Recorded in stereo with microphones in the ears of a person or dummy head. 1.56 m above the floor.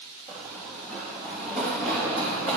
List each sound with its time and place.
0.3 s running footsteps: 5° left (ahead or behind), 2 m; by 2.6 s 15° left (ahead or behind), 4 m